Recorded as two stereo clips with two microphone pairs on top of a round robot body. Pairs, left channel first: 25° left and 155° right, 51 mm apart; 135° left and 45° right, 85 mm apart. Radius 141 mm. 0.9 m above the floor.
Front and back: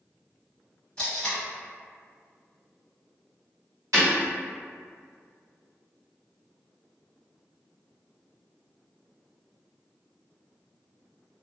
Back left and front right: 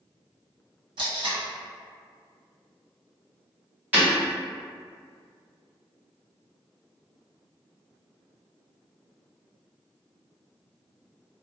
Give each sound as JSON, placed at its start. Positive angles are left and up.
{"t": 1.0, "sound": "tape being pulled", "azimuth_deg": -45, "distance_m": 1.2}
{"t": 3.9, "sound": "breaking glass", "azimuth_deg": -120, "distance_m": 1.2}